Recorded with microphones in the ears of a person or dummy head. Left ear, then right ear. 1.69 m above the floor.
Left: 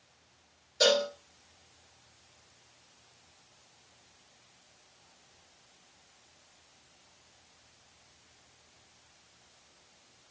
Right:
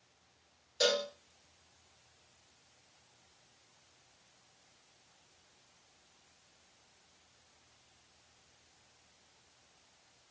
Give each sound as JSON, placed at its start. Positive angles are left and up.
{"t": 0.8, "sound": "a cowbell", "side_deg": -10, "distance_m": 1.4}